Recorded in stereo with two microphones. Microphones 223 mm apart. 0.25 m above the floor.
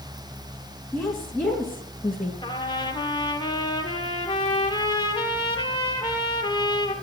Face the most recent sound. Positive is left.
turn(degrees=20)  # may be behind; listen again after turning